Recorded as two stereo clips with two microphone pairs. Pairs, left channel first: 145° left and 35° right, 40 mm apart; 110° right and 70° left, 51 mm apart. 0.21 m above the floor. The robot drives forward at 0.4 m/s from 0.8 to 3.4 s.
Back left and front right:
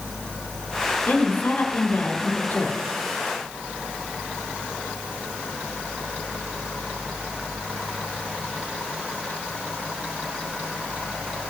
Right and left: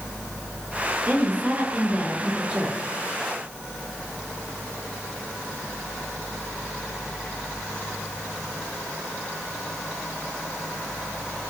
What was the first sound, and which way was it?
A woman speaking, 115° left.